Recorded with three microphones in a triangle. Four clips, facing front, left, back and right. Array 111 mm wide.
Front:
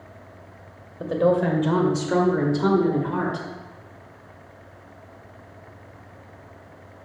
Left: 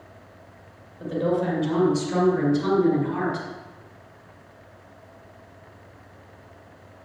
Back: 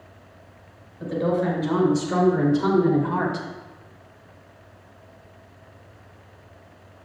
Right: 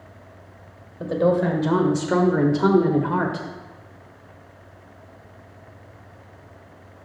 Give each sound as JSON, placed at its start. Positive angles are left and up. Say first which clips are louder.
{"t": 1.0, "sound": "a woman speaking", "louder": "right 4 dB, front 3 dB", "azimuth_deg": -40, "distance_m": 3.0}